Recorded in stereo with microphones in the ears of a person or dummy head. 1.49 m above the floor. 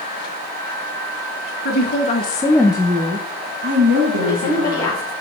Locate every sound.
1.6 s a woman speaking: 55° left (ahead or behind), 1.2 m; by 5.0 s 60° right (ahead or behind), 2.5 m
4.2 s a woman speaking: 15° left (ahead or behind), 4 m